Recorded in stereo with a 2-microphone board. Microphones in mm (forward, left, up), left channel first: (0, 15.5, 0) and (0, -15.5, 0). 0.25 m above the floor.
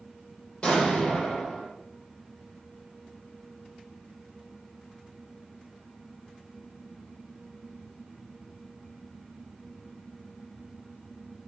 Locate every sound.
0.6 s an explosion: 35° left (ahead or behind), 7.5 m